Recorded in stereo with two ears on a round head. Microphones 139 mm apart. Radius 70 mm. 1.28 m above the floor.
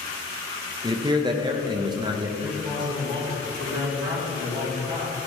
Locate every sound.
0.8 s a man speaking: 30° right (ahead or behind), 0.8 m
2.4 s a man speaking: 85° right, 2.0 m